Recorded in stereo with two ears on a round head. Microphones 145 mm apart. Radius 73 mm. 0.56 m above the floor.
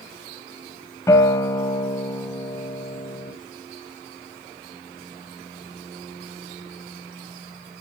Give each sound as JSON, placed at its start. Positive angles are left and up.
{"t": 1.1, "sound": "a guitar", "side_deg": 20, "distance_m": 1.5}